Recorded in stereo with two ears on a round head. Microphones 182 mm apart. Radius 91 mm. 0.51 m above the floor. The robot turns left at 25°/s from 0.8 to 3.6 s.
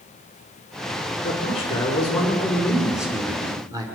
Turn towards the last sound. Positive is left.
turn(degrees=-20)